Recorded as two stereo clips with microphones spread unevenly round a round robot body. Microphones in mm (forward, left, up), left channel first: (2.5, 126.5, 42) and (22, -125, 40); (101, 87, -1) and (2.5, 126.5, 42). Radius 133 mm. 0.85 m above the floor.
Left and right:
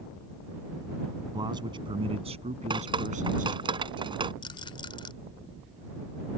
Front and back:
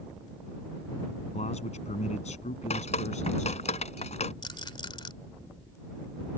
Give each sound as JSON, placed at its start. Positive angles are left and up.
{"t": 1.3, "sound": "a man speaking", "azimuth_deg": -10}
{"t": 2.7, "sound": "dripping", "azimuth_deg": -15}
{"t": 4.4, "sound": "a rattle", "azimuth_deg": 25}